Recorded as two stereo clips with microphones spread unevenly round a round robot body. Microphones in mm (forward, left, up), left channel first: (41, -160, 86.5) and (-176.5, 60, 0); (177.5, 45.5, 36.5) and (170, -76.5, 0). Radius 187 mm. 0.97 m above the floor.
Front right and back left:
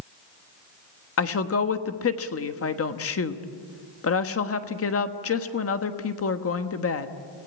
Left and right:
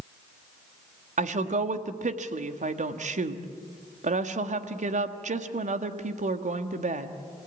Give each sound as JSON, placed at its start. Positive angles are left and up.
{"t": 1.2, "sound": "a woman speaking", "azimuth_deg": -95, "distance_m": 1.5}